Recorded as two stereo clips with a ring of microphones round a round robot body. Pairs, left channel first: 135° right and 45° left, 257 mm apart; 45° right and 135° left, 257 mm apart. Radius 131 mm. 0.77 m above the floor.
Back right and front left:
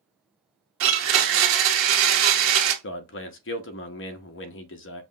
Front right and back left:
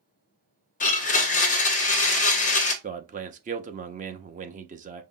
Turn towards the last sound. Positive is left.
turn(degrees=-170)